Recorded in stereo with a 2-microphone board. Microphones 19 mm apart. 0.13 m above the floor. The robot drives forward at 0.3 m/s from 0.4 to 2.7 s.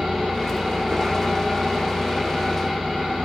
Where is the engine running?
35° right (ahead or behind), 10 m.